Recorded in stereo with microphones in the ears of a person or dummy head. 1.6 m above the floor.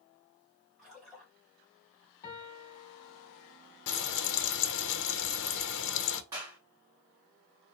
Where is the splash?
Centre (ahead or behind), 1.7 m.